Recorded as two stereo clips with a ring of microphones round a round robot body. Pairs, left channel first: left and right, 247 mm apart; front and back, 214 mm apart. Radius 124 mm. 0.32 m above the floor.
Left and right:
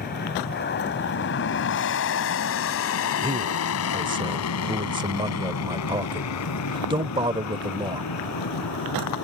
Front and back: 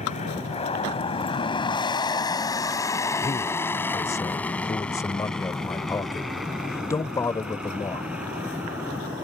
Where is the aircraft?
50° left; by 9.2 s 100° left.